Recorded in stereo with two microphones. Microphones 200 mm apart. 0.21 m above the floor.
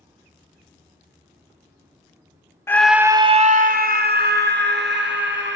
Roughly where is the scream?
Centre.